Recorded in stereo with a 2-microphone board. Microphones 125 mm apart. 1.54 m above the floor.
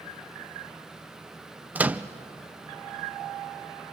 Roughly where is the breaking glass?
No breaking glass in this recording.